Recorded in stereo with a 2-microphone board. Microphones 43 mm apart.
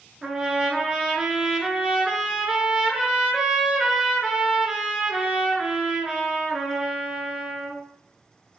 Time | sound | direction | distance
0.2 | a trumpet | 15° right (ahead or behind) | 1.4 m